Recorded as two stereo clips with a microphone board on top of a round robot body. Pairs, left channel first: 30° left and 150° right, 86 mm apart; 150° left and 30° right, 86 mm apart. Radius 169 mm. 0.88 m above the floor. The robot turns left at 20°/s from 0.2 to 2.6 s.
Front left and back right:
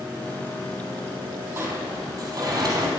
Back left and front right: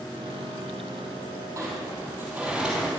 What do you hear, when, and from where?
1.6 s a sliding door: 90° right, 4 m; by 2.9 s 110° right, 4 m